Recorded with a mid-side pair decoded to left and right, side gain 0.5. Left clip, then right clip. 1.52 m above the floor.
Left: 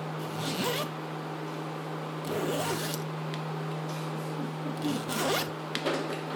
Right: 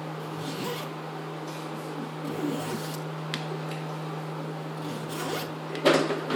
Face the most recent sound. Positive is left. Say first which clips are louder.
# left 4 dB
turn(degrees=55)